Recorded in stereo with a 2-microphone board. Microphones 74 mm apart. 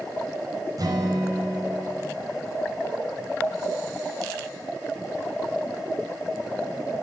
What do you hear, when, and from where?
0.8 s a guitar: 55° right (ahead or behind), 4.5 m